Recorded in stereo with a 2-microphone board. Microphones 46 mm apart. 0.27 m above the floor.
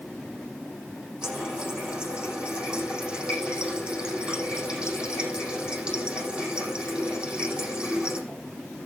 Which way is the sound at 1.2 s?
20° right (ahead or behind).